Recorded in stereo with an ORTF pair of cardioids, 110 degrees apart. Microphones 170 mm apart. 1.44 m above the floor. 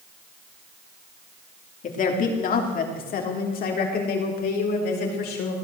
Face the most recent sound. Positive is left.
turn(degrees=70)